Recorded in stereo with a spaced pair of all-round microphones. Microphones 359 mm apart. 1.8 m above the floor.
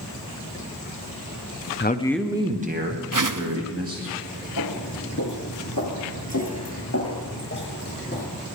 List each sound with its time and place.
1.8 s a man speaking: 30° left (ahead or behind), 0.8 m; by 4.1 s 40° right (ahead or behind), 3 m
3.1 s a whoosh: 60° right (ahead or behind), 0.8 m
4.6 s footsteps: 60° left (ahead or behind), 3.5 m; by 8.3 s 25° left (ahead or behind), 1.9 m